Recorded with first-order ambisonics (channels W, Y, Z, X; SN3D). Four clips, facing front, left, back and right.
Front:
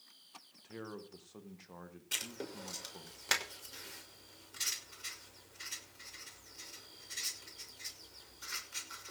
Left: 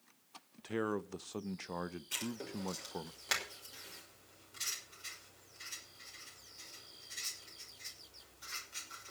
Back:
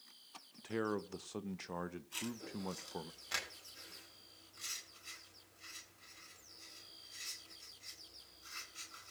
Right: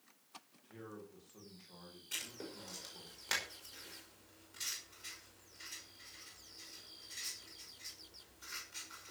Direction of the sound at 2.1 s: 5° left.